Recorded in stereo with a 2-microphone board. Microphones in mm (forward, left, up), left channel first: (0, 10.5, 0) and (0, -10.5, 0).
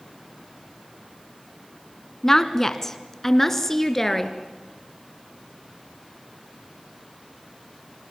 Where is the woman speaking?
20° left (ahead or behind), 1.6 m; by 4.3 s 15° left (ahead or behind), 2.5 m.